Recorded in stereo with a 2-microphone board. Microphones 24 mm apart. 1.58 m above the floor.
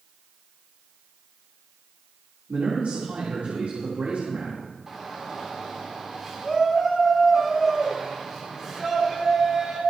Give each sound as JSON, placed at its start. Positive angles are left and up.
{"t": 2.5, "sound": "a man speaking", "side_deg": -75, "distance_m": 3.0}
{"t": 4.9, "sound": "a shout", "side_deg": -20, "distance_m": 4.0}